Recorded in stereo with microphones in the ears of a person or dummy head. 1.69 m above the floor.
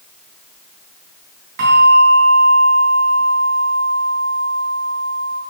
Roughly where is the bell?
Right.